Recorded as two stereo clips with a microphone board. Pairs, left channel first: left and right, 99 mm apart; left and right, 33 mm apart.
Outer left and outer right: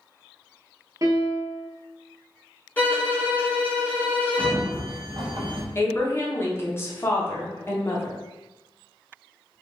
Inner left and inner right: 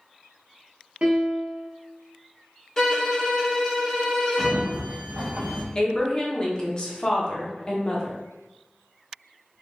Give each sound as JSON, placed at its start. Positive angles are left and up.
{"t": 1.0, "sound": "a piano", "side_deg": -35, "distance_m": 0.6}
{"t": 2.8, "sound": "a violin", "side_deg": 15, "distance_m": 0.9}
{"t": 4.4, "sound": "a sliding door", "side_deg": -55, "distance_m": 0.6}
{"t": 5.8, "sound": "a woman speaking", "side_deg": 25, "distance_m": 0.7}